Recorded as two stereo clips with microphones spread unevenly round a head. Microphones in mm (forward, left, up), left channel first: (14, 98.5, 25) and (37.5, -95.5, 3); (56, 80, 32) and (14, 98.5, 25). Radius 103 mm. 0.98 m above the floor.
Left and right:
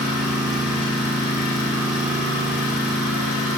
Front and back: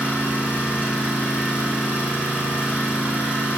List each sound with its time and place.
0.0 s an engine running: 100° left, 5.5 m